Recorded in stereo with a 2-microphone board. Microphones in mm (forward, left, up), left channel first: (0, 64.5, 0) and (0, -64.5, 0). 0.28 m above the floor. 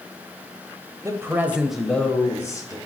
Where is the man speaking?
25° right (ahead or behind), 0.9 m; by 2.8 s 30° left (ahead or behind), 1.2 m.